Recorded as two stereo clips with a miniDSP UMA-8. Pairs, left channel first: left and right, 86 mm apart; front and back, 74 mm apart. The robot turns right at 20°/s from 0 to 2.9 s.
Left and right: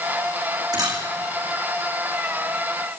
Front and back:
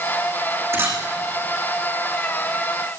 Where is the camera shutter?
125° right, 5 m; by 1.0 s 120° right, 5 m.